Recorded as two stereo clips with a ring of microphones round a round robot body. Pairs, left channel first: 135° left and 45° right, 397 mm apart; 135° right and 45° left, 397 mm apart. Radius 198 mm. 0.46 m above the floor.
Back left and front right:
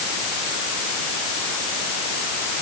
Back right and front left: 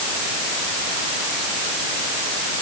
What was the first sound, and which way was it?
Only background noise.